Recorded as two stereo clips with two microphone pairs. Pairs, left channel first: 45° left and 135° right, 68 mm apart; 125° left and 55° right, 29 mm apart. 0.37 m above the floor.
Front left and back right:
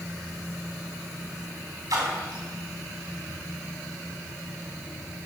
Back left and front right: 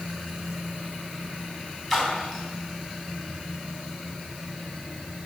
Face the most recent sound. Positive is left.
turn(degrees=-155)